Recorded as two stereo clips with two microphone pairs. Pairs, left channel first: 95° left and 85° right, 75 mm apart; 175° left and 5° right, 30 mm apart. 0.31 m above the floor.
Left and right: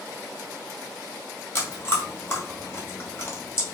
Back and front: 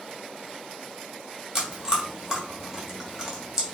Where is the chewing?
55° left, 2.0 m.